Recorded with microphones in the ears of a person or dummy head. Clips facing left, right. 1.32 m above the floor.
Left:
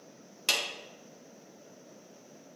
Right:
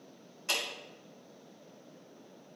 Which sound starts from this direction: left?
A clap, at 0.5 s.